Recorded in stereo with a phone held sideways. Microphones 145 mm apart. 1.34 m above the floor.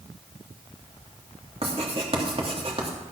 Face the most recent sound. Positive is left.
turn(degrees=-45)  # may be behind; listen again after turning